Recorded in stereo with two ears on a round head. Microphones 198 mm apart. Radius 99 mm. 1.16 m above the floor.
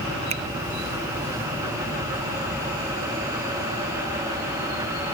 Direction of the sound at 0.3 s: 30° right (ahead or behind).